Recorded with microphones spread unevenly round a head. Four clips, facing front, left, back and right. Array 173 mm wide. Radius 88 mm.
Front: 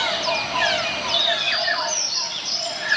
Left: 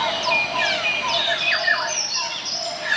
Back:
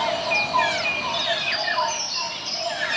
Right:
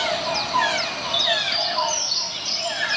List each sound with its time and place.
1.1 s a bird: 40° left, 4 m